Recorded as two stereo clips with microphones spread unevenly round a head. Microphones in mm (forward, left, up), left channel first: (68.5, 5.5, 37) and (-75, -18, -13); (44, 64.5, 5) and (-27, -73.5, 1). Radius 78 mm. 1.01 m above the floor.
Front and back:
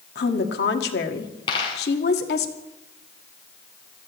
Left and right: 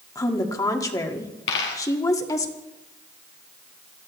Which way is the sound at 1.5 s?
65° left.